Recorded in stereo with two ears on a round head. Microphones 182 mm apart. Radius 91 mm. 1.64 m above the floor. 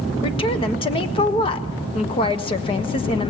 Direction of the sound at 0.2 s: 25° left (ahead or behind).